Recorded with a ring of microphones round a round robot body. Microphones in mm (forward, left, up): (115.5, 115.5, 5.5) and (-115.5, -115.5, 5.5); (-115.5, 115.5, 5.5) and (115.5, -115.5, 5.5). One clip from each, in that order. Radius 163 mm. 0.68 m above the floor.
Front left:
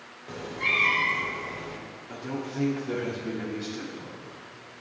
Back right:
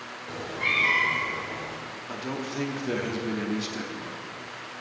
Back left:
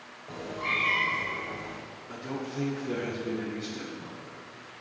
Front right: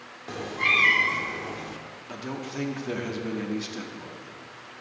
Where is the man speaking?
85° right, 1.3 m.